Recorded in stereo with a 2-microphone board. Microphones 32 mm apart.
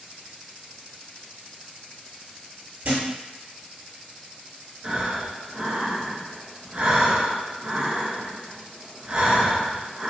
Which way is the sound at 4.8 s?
40° right (ahead or behind).